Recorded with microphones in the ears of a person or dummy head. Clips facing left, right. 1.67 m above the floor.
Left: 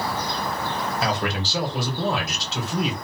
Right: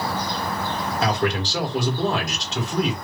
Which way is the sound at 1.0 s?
5° left (ahead or behind).